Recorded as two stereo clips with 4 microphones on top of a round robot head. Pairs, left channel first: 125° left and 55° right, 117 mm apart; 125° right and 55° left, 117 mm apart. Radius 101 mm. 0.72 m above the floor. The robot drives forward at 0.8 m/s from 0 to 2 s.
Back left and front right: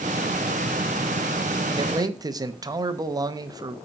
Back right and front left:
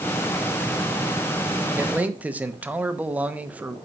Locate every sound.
1.8 s a man speaking: 10° right, 1.1 m; by 3.8 s 15° right, 0.9 m